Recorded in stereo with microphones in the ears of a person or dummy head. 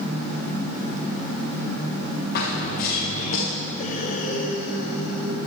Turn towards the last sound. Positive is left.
turn(degrees=45)  # may be behind; listen again after turning